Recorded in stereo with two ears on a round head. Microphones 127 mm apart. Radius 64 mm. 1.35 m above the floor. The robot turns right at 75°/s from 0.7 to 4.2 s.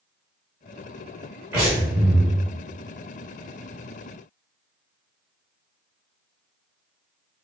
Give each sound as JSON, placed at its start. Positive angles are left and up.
{"t": 1.5, "sound": "breathing", "azimuth_deg": -15, "distance_m": 1.7}